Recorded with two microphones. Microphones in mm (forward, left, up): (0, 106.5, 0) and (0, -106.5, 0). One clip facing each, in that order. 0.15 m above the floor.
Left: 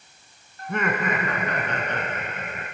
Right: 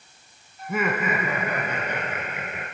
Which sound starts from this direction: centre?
Laughter, at 0.6 s.